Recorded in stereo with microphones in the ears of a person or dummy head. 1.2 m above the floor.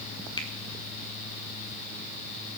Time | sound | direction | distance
0.4 | a finger snap | 20° left (ahead or behind) | 1.5 m